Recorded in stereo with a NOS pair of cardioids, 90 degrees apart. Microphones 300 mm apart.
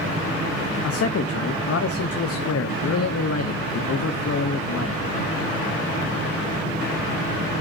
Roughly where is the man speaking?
Ahead left.